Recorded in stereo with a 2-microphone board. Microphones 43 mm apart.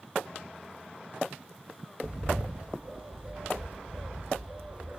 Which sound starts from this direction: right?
A bird, at 2.0 s.